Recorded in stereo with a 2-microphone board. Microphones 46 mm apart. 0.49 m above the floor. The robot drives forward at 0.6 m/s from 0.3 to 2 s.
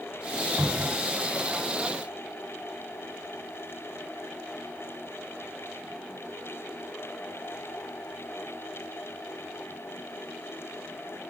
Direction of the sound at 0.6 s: 75° right (ahead or behind).